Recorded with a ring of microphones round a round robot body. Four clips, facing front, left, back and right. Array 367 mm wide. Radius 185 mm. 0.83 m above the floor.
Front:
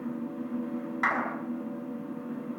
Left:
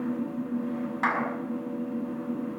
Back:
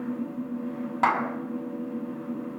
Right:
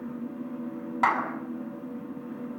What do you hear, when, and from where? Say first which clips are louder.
1.0 s a clap: right 3 dB, back 6 dB; 150° right, 6 m